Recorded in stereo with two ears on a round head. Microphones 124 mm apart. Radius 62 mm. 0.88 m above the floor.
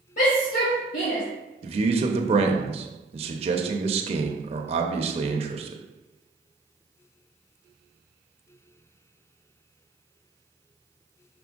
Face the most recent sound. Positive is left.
turn(degrees=-45)  # may be behind; listen again after turning